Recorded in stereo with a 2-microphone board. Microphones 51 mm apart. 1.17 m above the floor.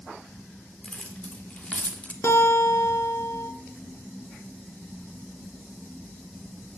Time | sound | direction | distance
0.8 | keys jangling | 25° left (ahead or behind) | 2.5 m
2.2 | a guitar | 65° left (ahead or behind) | 2.5 m